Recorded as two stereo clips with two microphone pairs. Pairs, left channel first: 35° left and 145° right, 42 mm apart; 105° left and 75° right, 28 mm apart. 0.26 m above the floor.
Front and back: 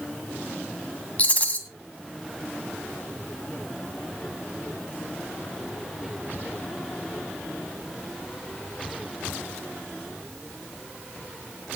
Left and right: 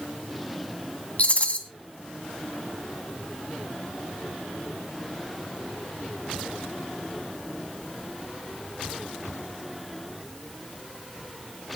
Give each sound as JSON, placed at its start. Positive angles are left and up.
{"t": 1.2, "sound": "a rattle", "azimuth_deg": 80, "distance_m": 1.9}